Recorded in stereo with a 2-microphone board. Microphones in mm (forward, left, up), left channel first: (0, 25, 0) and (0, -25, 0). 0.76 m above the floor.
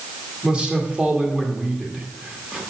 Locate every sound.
0.4 s a man speaking: 20° right (ahead or behind), 1.8 m